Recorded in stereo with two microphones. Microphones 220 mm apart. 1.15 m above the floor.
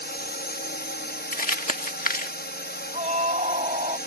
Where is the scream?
30° right (ahead or behind).